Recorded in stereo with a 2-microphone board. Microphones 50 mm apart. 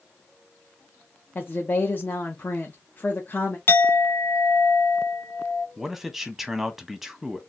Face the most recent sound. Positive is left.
turn(degrees=-5)  # may be behind; listen again after turning